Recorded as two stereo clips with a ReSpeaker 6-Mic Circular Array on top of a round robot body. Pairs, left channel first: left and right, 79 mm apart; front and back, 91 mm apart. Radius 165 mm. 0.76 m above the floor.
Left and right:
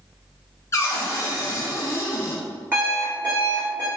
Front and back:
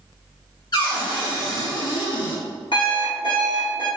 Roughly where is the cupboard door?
Ahead left.